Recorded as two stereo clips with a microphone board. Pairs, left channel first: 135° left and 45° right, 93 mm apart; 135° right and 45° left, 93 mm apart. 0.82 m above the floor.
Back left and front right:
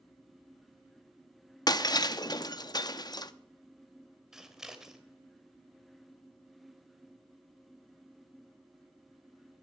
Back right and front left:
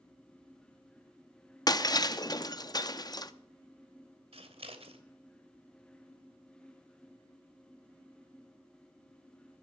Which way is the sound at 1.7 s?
Straight behind.